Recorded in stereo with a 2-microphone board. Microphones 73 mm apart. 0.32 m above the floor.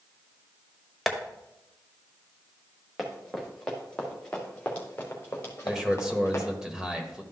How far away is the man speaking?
About 1.1 m.